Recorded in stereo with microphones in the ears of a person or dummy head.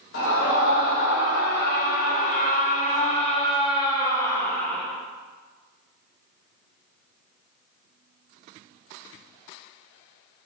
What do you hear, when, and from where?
0.1 s a scream: 70° left (ahead or behind), 3.5 m; by 4.9 s 5° left (ahead or behind), 2.0 m